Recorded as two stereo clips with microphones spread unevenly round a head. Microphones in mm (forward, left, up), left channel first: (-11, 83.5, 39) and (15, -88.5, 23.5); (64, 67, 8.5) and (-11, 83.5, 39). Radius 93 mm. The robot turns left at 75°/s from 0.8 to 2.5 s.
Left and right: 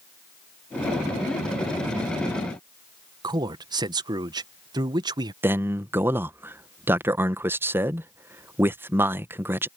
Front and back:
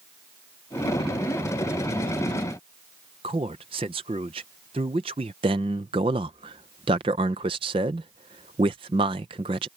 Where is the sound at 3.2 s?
150° right.